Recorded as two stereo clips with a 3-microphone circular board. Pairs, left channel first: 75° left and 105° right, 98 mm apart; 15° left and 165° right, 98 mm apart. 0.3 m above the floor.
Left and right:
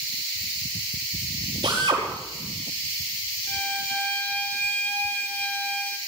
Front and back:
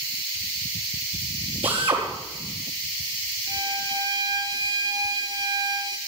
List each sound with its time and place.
1.6 s a drill: 150° right, 5 m
3.5 s a violin: 145° left, 1.3 m